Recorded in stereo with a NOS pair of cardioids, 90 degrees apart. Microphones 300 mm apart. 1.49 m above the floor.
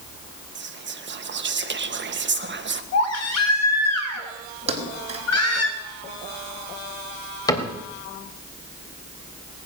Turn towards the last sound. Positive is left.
turn(degrees=10)